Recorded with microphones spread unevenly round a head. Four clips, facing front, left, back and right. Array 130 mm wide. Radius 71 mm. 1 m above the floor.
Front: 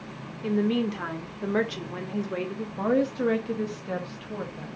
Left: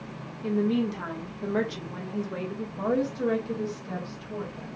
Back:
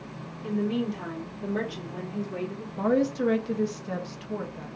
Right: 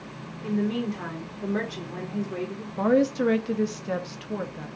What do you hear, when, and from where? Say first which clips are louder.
0.4 s a woman speaking: left 1 dB, front 3 dB; 5° right, 1.0 m
2.8 s a woman speaking: right 6 dB, even; 70° right, 0.7 m